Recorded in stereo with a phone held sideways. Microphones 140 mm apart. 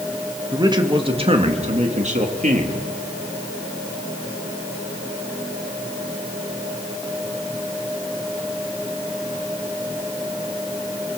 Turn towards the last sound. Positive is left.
turn(degrees=-70)  # may be behind; listen again after turning